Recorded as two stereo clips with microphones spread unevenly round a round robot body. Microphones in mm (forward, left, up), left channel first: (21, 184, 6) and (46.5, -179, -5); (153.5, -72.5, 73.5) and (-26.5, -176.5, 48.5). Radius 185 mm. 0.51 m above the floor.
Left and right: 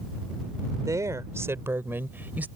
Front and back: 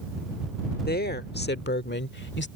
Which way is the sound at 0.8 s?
5° right.